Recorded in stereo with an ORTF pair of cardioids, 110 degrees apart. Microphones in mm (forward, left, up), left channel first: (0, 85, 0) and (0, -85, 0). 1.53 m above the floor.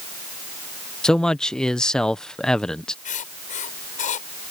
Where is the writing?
50° left.